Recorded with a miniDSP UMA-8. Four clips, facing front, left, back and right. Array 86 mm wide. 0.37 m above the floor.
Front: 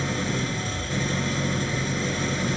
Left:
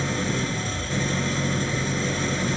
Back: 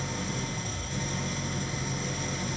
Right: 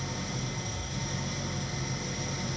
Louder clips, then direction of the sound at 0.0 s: Left 10 dB, front 7 dB; 55° left.